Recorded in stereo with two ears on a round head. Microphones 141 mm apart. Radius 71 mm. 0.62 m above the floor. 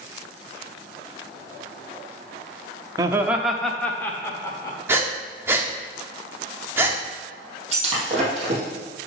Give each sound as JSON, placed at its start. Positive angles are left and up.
{"t": 3.0, "sound": "laughter", "side_deg": -20, "distance_m": 0.8}
{"t": 4.9, "sound": "breathing", "side_deg": -15, "distance_m": 1.0}
{"t": 7.7, "sound": "breaking glass", "side_deg": -45, "distance_m": 3.0}